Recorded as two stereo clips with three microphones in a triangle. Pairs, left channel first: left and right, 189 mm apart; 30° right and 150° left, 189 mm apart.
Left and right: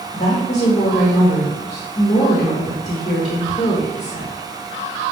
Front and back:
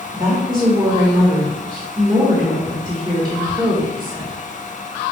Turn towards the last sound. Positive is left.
turn(degrees=105)